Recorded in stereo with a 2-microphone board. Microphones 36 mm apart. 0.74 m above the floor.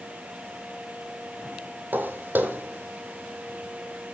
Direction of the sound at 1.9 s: 70° right (ahead or behind).